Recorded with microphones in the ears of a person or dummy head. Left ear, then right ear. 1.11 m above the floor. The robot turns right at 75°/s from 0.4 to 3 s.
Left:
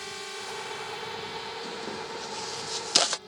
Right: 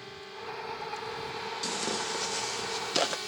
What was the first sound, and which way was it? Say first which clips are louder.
A drone: left 5 dB; 95° left.